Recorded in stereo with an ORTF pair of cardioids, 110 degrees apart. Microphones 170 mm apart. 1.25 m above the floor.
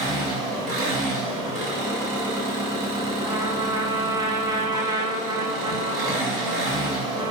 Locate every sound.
0.0 s an engine running: 60° right, 1.4 m
3.2 s a trumpet: 25° right, 0.5 m